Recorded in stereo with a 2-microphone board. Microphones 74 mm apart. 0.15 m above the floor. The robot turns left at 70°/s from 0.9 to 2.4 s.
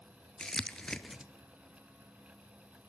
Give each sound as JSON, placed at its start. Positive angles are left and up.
{"t": 0.4, "sound": "crumpling", "side_deg": 10, "distance_m": 0.7}